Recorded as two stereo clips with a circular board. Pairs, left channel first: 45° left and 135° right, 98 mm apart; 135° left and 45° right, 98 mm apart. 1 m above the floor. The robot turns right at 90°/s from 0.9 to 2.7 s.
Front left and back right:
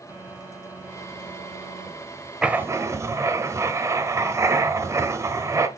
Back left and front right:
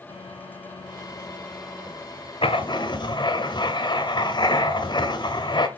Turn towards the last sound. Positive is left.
turn(degrees=170)